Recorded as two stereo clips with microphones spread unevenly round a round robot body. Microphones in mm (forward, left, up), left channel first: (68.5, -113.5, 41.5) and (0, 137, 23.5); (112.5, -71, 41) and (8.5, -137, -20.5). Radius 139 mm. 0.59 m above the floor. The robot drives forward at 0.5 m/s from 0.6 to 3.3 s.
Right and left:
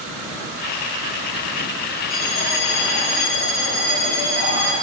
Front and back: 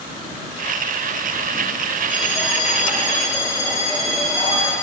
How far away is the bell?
About 3 m.